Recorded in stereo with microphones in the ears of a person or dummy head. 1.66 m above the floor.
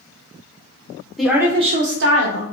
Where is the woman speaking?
Centre (ahead or behind), 0.9 m; by 2.5 s 75° right (ahead or behind), 1.1 m.